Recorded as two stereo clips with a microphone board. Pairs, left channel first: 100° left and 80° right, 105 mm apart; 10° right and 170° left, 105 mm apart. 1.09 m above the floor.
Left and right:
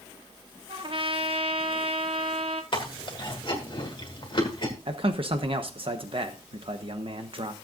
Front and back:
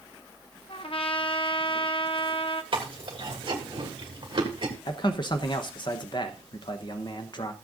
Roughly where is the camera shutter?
No camera shutter in this recording.